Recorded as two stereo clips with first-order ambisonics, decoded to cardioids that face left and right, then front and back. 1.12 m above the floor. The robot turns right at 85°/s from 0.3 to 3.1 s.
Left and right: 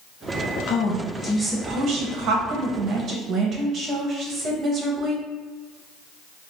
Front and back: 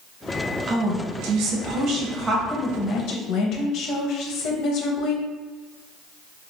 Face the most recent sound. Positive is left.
turn(degrees=-35)